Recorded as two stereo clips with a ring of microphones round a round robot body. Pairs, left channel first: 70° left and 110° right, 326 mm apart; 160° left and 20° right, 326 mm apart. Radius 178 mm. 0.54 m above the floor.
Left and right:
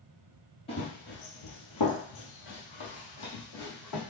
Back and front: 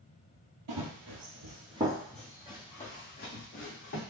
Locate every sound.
0.7 s running footsteps: 5° right, 1.0 m; by 4.0 s 105° left, 2 m